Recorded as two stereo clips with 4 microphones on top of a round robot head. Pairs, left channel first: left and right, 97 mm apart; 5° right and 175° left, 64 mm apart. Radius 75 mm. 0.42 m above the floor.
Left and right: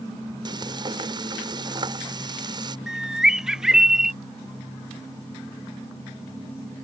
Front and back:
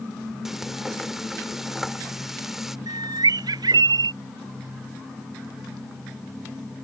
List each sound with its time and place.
0.5 s frying: 100° right
2.9 s a bird: 175° right